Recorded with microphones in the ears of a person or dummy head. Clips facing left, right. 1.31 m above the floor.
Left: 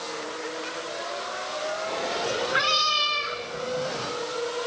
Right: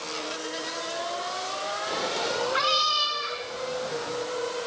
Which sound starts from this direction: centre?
A cat meowing, at 1.9 s.